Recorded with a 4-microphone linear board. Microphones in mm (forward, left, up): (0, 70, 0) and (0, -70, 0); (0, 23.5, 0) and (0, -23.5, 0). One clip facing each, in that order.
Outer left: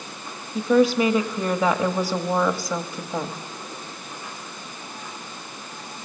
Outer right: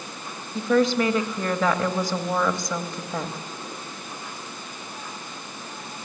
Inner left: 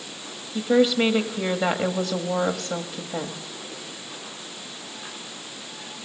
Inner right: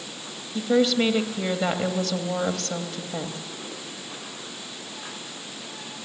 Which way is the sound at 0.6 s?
10° left (ahead or behind).